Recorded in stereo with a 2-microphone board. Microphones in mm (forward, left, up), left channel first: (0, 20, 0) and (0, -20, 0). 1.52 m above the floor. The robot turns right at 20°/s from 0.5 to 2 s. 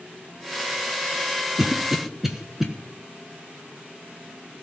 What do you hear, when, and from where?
1.6 s a cough: 15° right (ahead or behind), 1.1 m; by 2.7 s 5° right (ahead or behind), 1.1 m